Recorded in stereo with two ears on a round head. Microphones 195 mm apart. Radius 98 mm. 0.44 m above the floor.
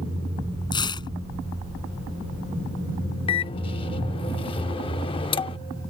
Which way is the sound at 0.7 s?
20° left (ahead or behind).